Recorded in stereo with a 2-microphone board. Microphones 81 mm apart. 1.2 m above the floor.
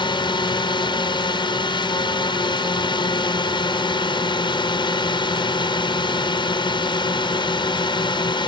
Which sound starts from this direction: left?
A drone, at 0.0 s.